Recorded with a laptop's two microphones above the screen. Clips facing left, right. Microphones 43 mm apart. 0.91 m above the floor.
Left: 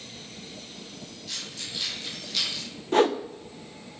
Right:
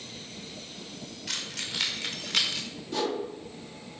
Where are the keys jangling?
85° right, 1.8 m; by 2.6 s 60° right (ahead or behind), 1.5 m.